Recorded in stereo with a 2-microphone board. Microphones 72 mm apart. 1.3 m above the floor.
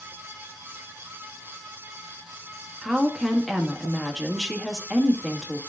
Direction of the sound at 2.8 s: Centre (ahead or behind).